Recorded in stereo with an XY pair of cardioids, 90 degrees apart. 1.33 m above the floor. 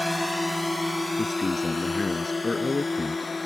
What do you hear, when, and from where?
0.0 s a drone: 15° left; by 3.5 s 30° left
1.2 s a man speaking: 30° left